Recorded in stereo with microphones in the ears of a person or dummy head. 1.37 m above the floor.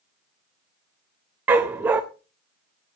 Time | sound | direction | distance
1.5 | a dog barking | 10° right (ahead or behind) | 0.8 m